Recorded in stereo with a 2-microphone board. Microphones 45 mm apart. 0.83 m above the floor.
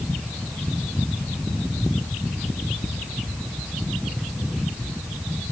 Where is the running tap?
I don't hear a running tap.